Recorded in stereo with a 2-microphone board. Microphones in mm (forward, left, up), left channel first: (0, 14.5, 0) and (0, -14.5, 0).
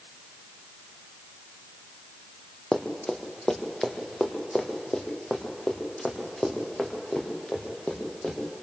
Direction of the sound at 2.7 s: 25° left (ahead or behind).